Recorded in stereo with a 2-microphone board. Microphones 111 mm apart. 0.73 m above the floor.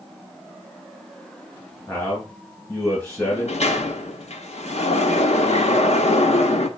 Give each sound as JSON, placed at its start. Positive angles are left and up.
{"t": 1.9, "sound": "a man speaking", "side_deg": 25, "distance_m": 4.0}
{"t": 3.2, "sound": "a sliding door", "side_deg": 75, "distance_m": 0.9}